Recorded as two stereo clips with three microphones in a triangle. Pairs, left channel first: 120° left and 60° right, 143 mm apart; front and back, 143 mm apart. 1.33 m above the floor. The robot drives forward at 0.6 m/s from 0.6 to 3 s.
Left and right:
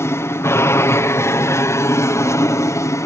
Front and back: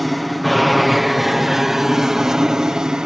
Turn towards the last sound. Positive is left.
turn(degrees=105)